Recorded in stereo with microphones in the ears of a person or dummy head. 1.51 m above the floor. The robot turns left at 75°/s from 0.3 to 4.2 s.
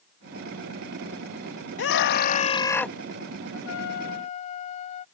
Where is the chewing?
No chewing in this recording.